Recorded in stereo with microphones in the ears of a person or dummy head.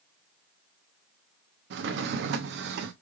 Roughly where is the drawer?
Right.